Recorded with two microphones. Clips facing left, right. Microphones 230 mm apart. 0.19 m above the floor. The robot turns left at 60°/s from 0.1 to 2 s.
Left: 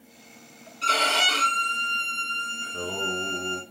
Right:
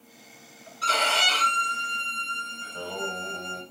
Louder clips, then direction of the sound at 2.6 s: Left 2 dB; 45° left (ahead or behind).